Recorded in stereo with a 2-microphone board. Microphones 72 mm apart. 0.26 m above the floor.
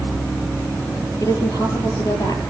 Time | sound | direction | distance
1.2 | a woman speaking | 60° left (ahead or behind) | 7 m